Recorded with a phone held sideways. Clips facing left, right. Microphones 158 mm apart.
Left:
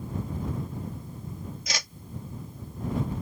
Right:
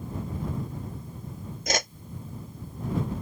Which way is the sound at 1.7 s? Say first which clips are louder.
Right 13 dB; 55° right (ahead or behind).